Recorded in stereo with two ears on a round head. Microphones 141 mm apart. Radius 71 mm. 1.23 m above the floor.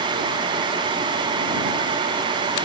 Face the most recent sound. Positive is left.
No sound to turn to.